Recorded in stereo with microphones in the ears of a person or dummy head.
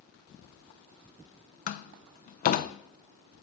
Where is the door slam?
45° left (ahead or behind), 0.7 m.